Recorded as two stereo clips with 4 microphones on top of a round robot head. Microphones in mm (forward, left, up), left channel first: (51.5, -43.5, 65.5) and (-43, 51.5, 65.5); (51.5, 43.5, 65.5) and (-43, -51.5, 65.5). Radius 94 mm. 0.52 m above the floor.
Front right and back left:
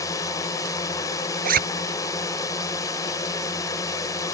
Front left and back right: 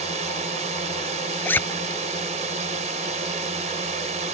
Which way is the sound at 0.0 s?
110° right.